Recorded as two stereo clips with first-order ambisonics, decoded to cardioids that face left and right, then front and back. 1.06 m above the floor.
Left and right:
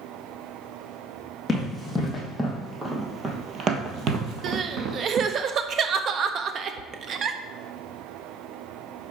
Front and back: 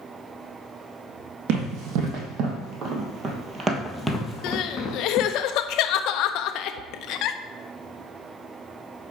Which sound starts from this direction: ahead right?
Crying, at 4.4 s.